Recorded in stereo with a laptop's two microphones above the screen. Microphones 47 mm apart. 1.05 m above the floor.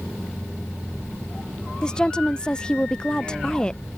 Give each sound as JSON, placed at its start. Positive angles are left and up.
{"t": 1.8, "sound": "a woman speaking", "side_deg": 20}